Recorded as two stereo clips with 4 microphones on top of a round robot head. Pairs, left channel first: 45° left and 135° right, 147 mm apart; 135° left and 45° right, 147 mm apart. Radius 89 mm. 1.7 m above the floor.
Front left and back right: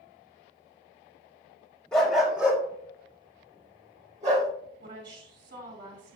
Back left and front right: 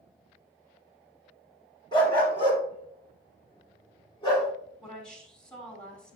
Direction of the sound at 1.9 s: 125° left.